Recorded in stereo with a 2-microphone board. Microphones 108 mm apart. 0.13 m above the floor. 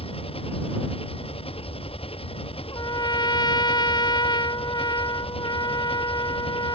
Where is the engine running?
55° left (ahead or behind).